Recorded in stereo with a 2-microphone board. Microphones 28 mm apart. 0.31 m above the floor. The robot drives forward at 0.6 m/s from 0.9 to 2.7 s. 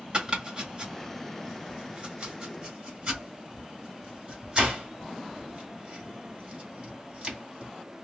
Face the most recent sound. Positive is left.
turn(degrees=-35)  # may be behind; listen again after turning